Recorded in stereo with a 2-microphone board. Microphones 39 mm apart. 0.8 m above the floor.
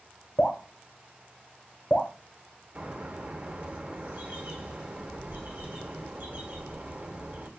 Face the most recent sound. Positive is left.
turn(degrees=-45)  # may be behind; listen again after turning